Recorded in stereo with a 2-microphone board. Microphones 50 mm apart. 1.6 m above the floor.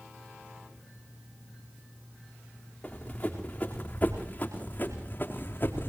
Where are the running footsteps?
20° left (ahead or behind), 5 m; by 5.9 s 40° left (ahead or behind), 3.5 m.